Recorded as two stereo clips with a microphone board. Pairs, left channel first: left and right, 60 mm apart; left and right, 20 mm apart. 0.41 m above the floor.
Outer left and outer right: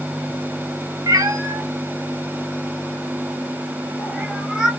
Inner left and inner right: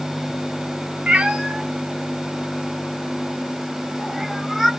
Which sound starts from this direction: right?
A cat meowing, at 1.1 s.